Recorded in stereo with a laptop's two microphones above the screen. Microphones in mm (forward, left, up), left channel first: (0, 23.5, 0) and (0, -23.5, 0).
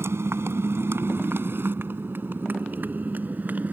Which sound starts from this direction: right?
A motorcycle, at 0.0 s.